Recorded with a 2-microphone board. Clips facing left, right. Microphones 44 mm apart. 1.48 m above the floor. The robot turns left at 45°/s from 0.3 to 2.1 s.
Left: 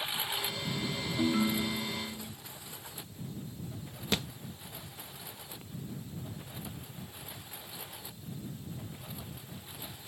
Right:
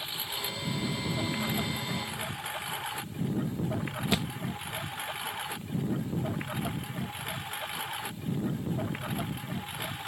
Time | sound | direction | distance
0.0 | a lawn mower | 10° left (ahead or behind) | ?
1.2 | a ringtone | 75° left | ?
4.1 | a thud | 10° right (ahead or behind) | ?